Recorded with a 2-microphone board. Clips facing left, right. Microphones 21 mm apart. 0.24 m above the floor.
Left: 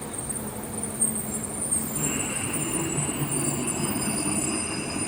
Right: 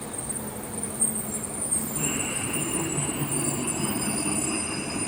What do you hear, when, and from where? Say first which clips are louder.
1.9 s laughter: right 1 dB; 45° right (ahead or behind), 8.5 m; by 5.1 s 15° right (ahead or behind), 8 m